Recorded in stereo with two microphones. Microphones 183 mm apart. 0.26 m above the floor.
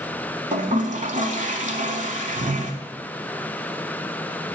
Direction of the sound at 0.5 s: 45° right (ahead or behind).